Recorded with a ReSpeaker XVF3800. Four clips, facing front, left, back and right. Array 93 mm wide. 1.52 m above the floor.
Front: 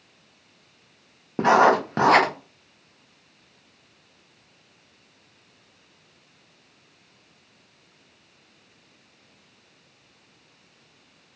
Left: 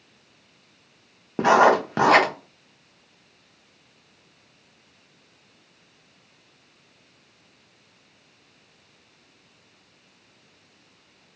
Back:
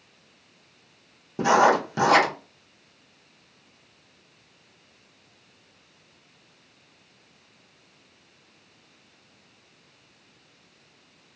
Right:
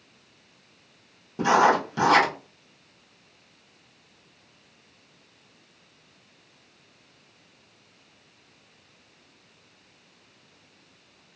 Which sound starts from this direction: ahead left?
Writing, at 1.4 s.